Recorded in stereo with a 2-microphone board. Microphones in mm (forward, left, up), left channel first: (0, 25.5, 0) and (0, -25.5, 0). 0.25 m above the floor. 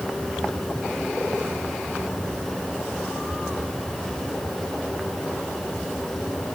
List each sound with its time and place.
Only background noise.